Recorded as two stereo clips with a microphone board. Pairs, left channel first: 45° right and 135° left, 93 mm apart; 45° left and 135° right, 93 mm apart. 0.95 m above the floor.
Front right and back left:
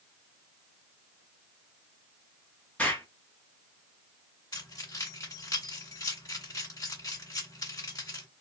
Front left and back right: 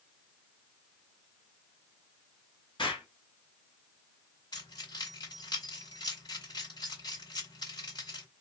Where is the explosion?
30° left, 1.0 m.